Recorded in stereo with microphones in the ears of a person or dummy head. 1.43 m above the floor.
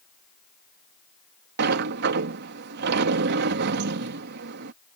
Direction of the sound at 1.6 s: 65° right (ahead or behind).